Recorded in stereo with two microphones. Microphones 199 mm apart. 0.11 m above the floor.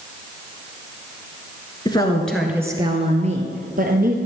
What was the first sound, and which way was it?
A woman speaking, 20° left (ahead or behind).